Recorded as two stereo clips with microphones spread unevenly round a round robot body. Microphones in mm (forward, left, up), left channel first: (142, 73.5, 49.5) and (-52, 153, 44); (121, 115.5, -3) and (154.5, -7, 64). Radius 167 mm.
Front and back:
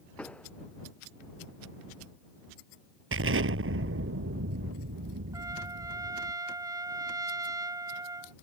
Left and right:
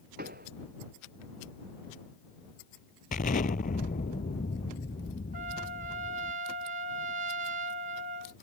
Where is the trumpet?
130° right.